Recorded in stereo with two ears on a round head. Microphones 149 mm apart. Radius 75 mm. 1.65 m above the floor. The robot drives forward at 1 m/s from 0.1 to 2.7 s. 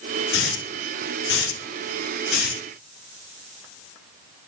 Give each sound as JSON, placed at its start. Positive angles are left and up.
{"t": 0.3, "sound": "a hiss", "side_deg": 75, "distance_m": 3.5}